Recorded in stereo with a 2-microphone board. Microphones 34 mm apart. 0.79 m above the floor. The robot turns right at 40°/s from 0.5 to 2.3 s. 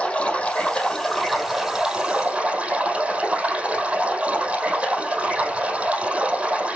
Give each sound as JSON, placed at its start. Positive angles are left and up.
{"t": 0.0, "sound": "running water", "azimuth_deg": 150, "distance_m": 4.0}